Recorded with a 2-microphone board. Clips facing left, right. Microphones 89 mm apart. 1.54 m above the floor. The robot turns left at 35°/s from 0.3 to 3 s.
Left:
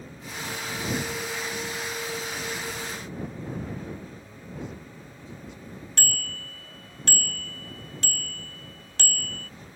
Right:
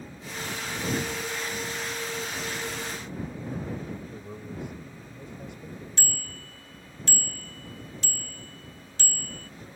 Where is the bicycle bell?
75° left (ahead or behind).